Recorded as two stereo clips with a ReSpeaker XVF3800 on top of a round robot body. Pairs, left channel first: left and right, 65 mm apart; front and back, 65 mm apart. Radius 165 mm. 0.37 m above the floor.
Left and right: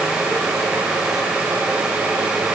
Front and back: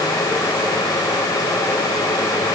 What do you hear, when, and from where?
Only background noise.